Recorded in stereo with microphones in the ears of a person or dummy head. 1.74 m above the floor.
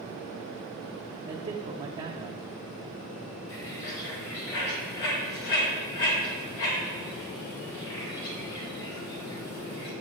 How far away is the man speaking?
About 0.5 m.